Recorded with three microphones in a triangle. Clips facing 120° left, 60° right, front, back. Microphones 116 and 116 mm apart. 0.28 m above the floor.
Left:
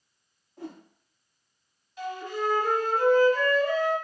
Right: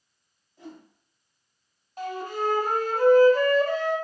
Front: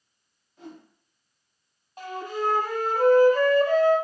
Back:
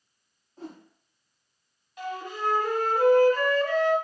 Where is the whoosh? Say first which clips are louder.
Left 3 dB, back 2 dB; 130° left, 0.9 m.